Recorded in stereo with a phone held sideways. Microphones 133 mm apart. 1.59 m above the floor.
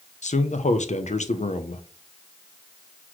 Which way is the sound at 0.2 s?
60° left (ahead or behind).